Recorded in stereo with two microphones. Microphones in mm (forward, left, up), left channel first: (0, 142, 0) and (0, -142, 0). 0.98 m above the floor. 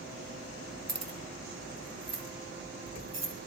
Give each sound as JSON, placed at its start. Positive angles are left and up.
{"t": 0.9, "sound": "keys jangling", "side_deg": -65, "distance_m": 0.7}